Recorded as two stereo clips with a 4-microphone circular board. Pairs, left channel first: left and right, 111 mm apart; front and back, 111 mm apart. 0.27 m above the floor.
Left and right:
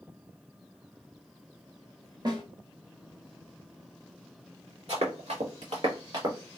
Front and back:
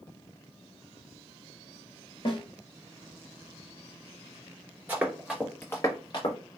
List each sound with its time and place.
2.2 s a snare drum: 40° right, 0.9 m
4.9 s running footsteps: 105° right, 1.3 m; by 6.4 s 40° right, 1.2 m